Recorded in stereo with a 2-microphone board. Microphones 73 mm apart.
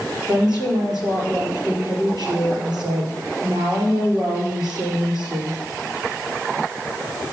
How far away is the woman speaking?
About 4 m.